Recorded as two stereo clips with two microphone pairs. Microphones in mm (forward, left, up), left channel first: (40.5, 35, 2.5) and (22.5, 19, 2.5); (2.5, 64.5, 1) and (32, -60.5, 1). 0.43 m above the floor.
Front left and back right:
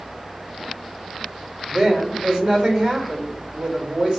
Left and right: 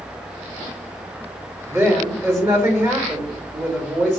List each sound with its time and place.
1.7 s a woman speaking: 135° right, 1.3 m